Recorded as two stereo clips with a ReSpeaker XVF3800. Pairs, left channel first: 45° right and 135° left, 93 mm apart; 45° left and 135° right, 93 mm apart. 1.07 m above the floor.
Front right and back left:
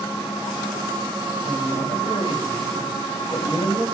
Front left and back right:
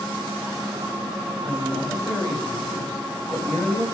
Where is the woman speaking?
45° right, 6 m; by 3.9 s 30° right, 7 m.